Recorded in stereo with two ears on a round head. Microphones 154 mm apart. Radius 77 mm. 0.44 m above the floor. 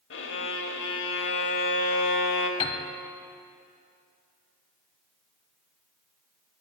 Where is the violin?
75° left (ahead or behind), 0.8 m.